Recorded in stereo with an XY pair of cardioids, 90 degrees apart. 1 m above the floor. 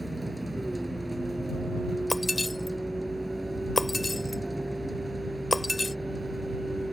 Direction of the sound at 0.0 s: 10° right.